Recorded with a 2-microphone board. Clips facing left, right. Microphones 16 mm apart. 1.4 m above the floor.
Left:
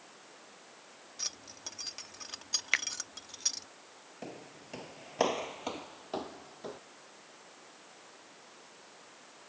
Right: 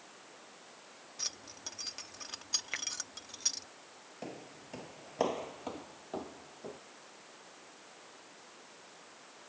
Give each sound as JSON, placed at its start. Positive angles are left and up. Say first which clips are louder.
{"t": 1.2, "sound": "keys jangling", "louder": "left 1 dB", "side_deg": 10}
{"t": 2.7, "sound": "a finger snap", "louder": "left 8 dB", "side_deg": 70}
{"t": 4.2, "sound": "footsteps", "louder": "even", "side_deg": 0}